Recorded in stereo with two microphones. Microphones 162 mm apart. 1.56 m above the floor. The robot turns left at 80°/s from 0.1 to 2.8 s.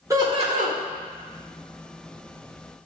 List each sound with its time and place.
0.1 s laughter: 20° right, 1.3 m; by 0.8 s 75° right, 1.3 m